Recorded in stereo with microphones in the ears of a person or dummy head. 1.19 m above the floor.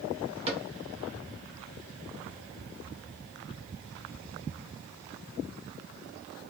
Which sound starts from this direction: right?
A cupboard door, at 0.5 s.